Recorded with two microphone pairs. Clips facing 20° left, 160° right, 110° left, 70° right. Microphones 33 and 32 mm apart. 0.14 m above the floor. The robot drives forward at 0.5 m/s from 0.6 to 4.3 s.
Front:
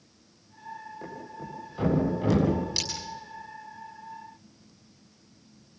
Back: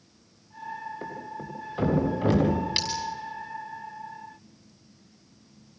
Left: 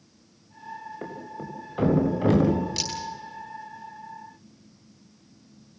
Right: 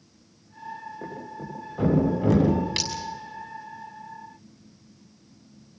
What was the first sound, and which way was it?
A thud, 140° left.